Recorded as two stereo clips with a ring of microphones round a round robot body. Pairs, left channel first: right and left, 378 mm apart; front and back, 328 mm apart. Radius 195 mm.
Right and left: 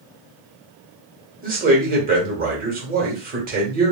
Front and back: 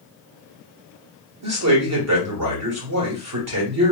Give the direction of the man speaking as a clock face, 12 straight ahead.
7 o'clock.